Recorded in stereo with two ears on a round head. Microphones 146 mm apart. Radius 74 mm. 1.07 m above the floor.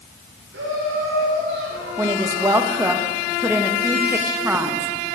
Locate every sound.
0.5 s laughter: 80° right, 4.5 m; by 3.0 s 70° right (ahead or behind), 3.5 m
2.0 s a woman speaking: 15° right (ahead or behind), 1.4 m